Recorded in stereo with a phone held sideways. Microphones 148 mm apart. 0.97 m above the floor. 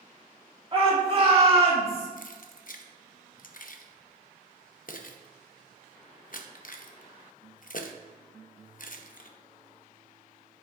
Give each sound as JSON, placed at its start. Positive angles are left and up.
{"t": 0.7, "sound": "a shout", "side_deg": -35, "distance_m": 2.5}
{"t": 2.2, "sound": "keys jangling", "side_deg": 65, "distance_m": 0.7}